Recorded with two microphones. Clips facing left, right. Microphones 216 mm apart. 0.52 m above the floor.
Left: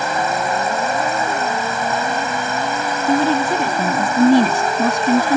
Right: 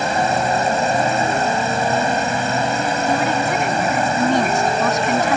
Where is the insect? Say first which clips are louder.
Right 2 dB; 30° right (ahead or behind).